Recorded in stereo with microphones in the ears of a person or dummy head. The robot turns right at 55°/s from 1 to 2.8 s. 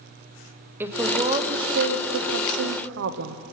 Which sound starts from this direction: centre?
A woman speaking, at 0.8 s.